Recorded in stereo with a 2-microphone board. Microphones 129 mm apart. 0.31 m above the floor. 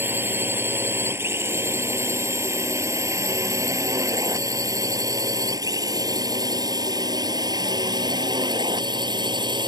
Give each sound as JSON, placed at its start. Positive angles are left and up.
{"t": 0.0, "sound": "a drone", "side_deg": -15}